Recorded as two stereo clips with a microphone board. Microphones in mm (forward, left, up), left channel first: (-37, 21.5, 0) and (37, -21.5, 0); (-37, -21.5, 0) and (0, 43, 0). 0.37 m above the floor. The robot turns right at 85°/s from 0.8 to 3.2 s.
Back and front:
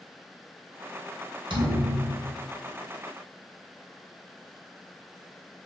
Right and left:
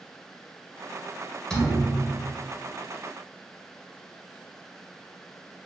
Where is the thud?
40° right, 1.0 m; by 2.5 s 40° left, 1.0 m.